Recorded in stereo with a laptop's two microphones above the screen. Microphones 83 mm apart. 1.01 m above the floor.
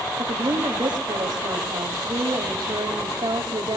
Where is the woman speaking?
80° right, 2.5 m.